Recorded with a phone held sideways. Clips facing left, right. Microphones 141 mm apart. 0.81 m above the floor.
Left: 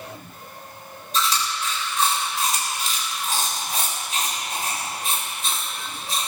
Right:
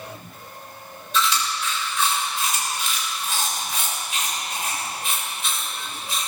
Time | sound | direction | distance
1.1 | chewing | 40° left (ahead or behind) | 4 m